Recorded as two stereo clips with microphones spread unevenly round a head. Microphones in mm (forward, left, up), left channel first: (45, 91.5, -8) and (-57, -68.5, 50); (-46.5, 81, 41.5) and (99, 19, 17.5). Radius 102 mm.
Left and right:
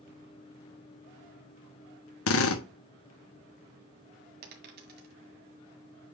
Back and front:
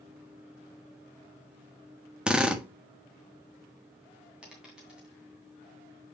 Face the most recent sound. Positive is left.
turn(degrees=-110)